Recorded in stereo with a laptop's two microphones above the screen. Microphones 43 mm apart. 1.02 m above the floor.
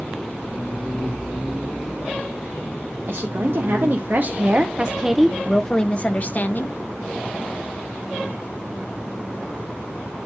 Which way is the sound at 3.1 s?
60° right (ahead or behind).